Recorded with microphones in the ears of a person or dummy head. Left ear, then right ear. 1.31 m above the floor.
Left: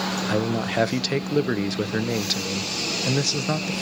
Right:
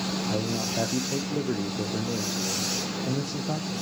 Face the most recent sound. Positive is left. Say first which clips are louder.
# left 5 dB
turn(degrees=55)  # may be behind; listen again after turning